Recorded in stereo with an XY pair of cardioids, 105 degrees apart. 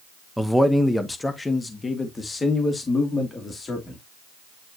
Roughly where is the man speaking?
Ahead.